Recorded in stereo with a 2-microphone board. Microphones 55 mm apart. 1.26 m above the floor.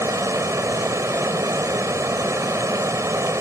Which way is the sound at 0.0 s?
75° right (ahead or behind).